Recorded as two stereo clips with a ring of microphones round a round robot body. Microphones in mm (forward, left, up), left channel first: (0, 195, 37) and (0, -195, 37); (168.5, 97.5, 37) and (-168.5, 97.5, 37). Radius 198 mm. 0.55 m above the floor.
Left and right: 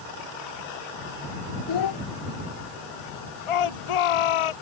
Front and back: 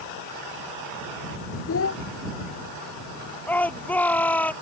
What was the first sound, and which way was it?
A child speaking, 50° left.